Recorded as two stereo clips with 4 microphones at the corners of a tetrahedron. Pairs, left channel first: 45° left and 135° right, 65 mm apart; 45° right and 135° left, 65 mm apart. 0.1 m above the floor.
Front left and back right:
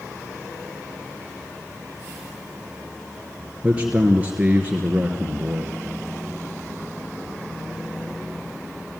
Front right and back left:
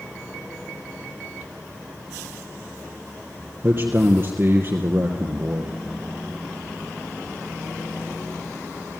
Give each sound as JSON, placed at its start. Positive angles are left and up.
{"t": 3.6, "sound": "a man speaking", "azimuth_deg": 165, "distance_m": 2.5}